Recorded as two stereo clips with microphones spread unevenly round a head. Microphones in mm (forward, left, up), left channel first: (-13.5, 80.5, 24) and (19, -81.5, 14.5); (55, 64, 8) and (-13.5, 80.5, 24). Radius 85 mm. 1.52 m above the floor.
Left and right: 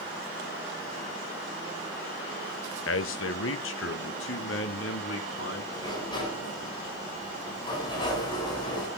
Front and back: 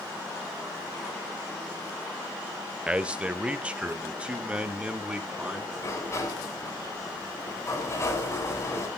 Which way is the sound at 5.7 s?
35° left.